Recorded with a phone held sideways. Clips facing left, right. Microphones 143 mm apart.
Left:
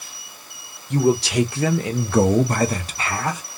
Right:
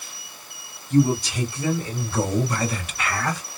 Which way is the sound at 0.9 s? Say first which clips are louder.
Left 1 dB; 70° left (ahead or behind).